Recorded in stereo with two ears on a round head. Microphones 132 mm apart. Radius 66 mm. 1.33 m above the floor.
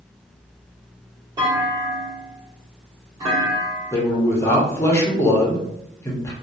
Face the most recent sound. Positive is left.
turn(degrees=20)  # may be behind; listen again after turning